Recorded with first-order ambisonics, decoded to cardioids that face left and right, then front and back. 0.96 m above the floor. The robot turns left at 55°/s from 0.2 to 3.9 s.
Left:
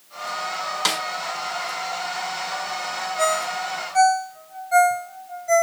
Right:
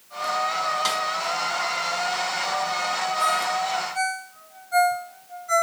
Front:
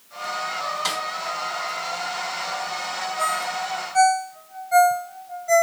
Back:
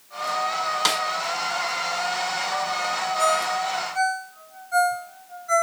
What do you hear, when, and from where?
0.8 s a snare drum: 145° left, 0.6 m; by 1.0 s 135° left, 0.6 m
3.2 s a ringtone: 85° left, 2 m; by 5.6 s 45° left, 2 m